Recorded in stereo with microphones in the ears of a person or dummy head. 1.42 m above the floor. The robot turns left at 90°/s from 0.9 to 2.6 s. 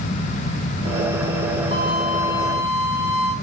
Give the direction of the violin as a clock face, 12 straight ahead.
5 o'clock.